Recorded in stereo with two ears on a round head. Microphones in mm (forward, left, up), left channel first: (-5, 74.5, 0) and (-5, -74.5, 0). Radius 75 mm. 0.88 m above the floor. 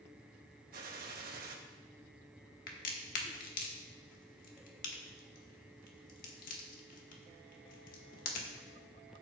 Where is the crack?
55° left (ahead or behind), 1.4 m.